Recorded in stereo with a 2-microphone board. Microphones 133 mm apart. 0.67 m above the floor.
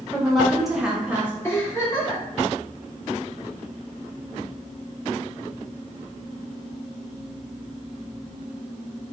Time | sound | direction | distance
0.1 | a woman speaking | centre (ahead or behind) | 1.3 m
1.4 | a giggle | 20° left (ahead or behind) | 1.7 m